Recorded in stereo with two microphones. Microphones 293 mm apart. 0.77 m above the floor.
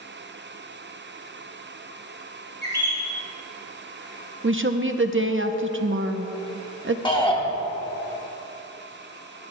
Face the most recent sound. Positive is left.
turn(degrees=15)  # may be behind; listen again after turning